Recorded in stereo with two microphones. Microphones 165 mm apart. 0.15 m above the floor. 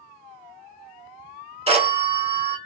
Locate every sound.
1.7 s a phone ringing: 40° right (ahead or behind), 1.0 m